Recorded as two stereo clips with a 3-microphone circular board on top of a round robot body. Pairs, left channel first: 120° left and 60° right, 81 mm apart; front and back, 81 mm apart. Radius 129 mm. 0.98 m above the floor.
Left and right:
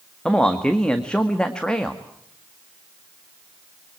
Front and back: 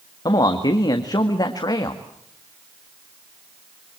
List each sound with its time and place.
0.2 s a man speaking: 40° left, 2.0 m